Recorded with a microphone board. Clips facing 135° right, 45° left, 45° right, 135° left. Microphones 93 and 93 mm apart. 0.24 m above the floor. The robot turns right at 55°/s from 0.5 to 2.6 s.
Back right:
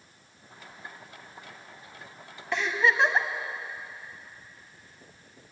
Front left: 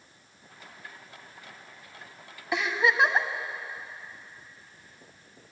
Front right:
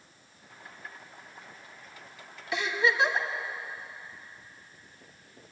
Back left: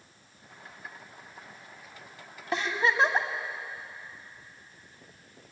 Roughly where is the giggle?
Behind left.